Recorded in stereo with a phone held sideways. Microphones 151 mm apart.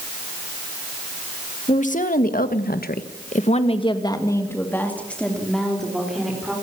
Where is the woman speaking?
55° left (ahead or behind), 2 m; by 6.5 s 5° right (ahead or behind), 4.5 m.